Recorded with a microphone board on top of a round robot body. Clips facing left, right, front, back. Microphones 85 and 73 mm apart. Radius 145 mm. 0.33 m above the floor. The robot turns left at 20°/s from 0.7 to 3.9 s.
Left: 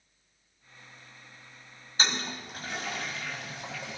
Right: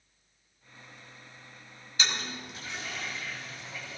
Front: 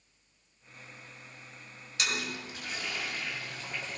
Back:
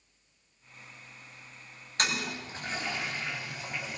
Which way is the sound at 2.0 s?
140° left.